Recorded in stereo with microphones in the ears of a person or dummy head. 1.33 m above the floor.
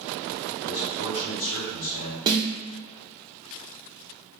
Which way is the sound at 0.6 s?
75° left (ahead or behind).